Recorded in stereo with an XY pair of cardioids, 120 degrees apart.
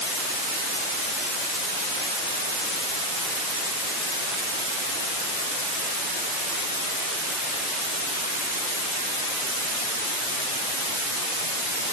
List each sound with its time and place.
Only background noise.